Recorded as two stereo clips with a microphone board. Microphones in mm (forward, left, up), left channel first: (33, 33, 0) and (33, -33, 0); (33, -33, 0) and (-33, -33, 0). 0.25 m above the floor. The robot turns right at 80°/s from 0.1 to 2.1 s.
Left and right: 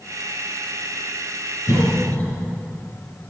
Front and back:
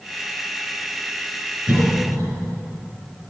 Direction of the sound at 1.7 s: 115° left.